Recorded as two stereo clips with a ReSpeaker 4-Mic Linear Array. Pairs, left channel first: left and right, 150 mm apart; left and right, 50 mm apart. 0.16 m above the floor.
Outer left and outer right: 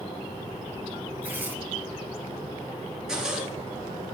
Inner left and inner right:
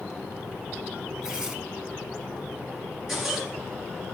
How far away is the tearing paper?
About 0.7 m.